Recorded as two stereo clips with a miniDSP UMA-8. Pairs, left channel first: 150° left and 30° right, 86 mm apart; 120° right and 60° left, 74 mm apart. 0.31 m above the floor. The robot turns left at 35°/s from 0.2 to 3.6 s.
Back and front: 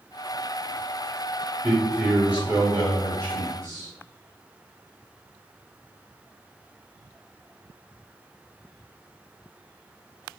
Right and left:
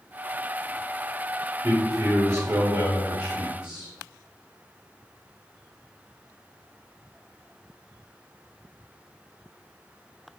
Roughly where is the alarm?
No alarm in this recording.